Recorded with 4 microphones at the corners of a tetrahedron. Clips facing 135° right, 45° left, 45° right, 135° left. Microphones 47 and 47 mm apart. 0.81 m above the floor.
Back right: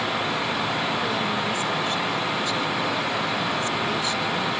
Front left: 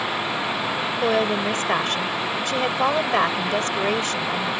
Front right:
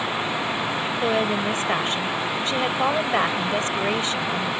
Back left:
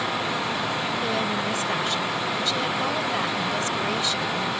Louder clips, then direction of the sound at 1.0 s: Front left 4 dB, front right 3 dB; 10° left.